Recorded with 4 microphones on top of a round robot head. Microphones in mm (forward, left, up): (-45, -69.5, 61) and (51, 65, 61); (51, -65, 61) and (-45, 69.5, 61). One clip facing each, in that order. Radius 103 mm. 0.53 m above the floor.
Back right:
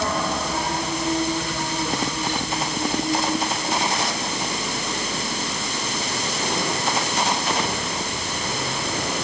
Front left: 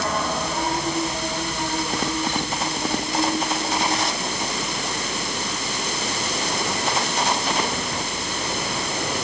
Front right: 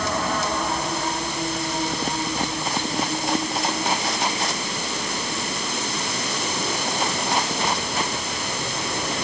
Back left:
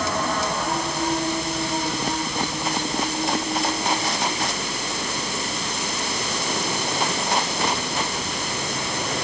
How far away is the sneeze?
No sneeze in this recording.